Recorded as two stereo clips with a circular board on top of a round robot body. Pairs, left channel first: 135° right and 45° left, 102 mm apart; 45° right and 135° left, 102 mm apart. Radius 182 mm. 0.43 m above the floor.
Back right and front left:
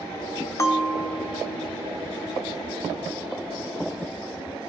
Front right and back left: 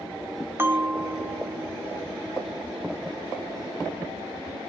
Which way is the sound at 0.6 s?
175° right.